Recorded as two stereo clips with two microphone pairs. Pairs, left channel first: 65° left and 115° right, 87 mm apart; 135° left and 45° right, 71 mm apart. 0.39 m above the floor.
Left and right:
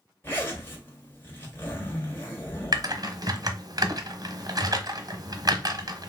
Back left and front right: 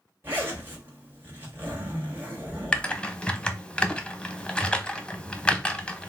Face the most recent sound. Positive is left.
turn(degrees=-155)